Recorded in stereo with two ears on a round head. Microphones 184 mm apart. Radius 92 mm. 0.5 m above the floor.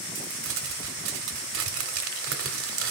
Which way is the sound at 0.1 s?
75° right (ahead or behind).